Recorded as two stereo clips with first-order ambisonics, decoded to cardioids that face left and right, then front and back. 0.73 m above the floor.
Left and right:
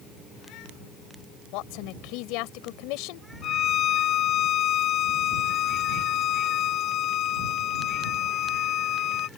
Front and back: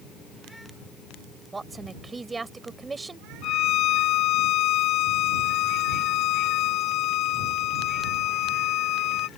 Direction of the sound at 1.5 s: 105° left.